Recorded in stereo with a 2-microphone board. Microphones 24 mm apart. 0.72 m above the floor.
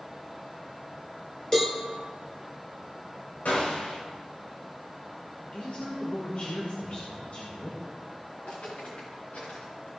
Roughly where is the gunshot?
Left.